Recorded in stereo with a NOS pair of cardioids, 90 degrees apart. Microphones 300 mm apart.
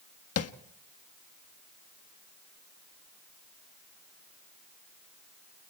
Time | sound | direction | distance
0.4 | tapping | 50° left | 1.5 m